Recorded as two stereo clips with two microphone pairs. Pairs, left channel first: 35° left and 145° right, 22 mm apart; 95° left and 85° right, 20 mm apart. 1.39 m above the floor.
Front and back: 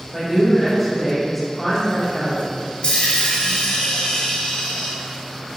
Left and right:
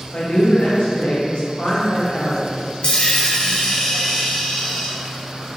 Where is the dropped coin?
65° left, 1.9 m.